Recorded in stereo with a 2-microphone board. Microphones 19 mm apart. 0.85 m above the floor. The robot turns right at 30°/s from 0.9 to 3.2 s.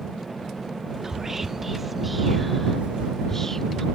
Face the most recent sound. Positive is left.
turn(degrees=20)  # may be behind; listen again after turning